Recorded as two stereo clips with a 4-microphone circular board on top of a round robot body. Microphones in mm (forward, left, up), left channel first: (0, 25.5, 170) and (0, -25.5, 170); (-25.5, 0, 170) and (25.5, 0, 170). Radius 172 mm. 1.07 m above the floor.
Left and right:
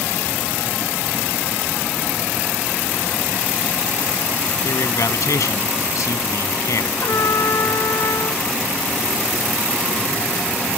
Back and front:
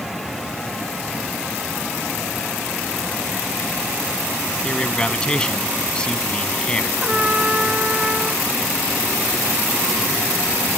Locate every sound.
4.6 s a man speaking: 105° left
7.0 s a trumpet: 70° left